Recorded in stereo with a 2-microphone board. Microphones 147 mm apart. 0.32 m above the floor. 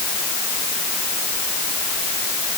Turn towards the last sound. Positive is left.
No sound to turn to.